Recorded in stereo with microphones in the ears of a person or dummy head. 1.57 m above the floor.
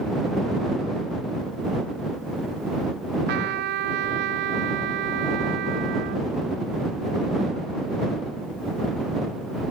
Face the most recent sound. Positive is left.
turn(degrees=-65)  # may be behind; listen again after turning